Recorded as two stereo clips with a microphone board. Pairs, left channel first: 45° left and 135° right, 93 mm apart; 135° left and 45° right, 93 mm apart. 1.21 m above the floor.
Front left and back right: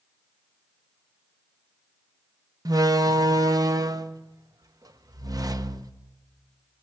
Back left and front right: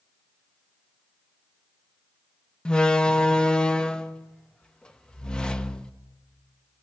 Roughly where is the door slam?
Behind right.